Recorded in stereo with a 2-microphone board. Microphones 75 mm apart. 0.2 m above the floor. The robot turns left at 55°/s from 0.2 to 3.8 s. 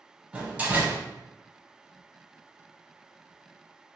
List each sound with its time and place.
0.3 s a door slam: 15° right (ahead or behind), 0.7 m; by 1.0 s 25° right (ahead or behind), 0.7 m